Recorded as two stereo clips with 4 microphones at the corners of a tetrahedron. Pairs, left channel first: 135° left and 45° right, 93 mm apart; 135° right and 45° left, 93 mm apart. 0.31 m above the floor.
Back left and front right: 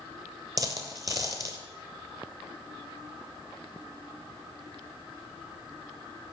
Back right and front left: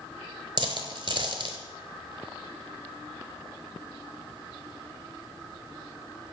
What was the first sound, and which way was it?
A dropped coin, 10° left.